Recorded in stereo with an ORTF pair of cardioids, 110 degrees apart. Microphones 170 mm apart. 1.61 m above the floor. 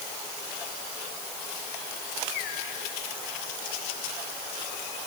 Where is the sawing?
No sawing in this recording.